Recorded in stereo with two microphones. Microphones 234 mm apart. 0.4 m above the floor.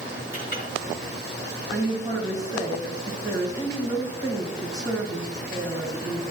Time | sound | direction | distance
0.3 | a clink | 35° left (ahead or behind) | 3 m
1.7 | a woman speaking | 15° right (ahead or behind) | 3 m